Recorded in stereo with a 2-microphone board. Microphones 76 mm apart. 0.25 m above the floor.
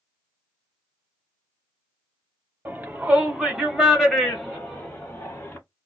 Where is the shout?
25° right (ahead or behind), 1.3 m; by 5.6 s 20° left (ahead or behind), 1.5 m.